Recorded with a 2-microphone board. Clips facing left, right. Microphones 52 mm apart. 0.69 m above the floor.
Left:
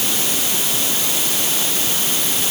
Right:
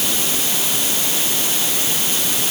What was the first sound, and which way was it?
Only background noise.